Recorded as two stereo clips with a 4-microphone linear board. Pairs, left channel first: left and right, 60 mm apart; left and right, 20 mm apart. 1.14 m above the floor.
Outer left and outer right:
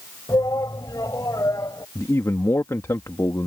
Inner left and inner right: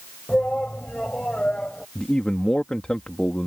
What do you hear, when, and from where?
0.3 s a shout: 75° left (ahead or behind); by 1.9 s 80° left
1.9 s a man speaking: 60° left (ahead or behind)